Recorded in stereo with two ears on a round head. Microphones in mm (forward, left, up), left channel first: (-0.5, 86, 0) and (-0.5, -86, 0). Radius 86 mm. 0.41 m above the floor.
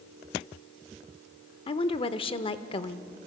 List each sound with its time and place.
1.7 s a woman speaking: 30° left (ahead or behind), 0.8 m